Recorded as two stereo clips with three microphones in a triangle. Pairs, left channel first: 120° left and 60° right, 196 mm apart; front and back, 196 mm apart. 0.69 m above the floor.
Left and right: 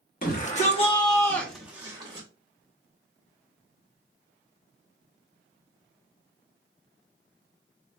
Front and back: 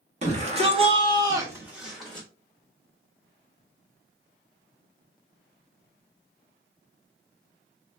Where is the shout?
140° left, 1.2 m; by 2.3 s 75° right, 0.9 m.